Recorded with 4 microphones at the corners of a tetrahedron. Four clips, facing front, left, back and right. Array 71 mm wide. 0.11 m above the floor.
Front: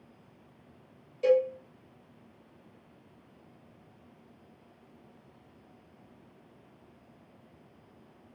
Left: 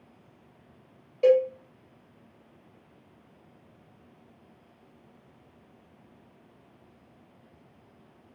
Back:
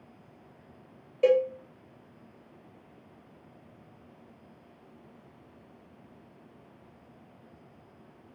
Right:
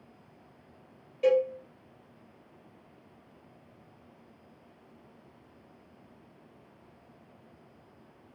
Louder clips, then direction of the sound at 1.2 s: Left 4 dB, back 1 dB; 150° left.